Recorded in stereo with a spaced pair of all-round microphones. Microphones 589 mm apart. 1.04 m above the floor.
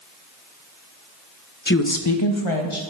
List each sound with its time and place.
1.7 s a woman speaking: 15° left (ahead or behind), 0.6 m; by 2.8 s 60° left (ahead or behind), 1.5 m